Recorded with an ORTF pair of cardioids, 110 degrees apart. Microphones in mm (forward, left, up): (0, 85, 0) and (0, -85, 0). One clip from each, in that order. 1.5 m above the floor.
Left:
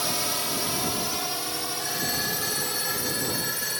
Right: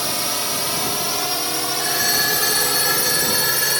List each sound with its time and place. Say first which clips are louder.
0.0 s a drone: right 4 dB; 20° right; by 3.8 s 60° right
1.8 s a phone ringing: right 10 dB; 50° right